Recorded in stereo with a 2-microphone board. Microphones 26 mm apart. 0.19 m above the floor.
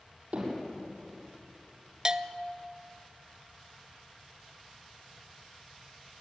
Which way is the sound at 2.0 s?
30° right (ahead or behind).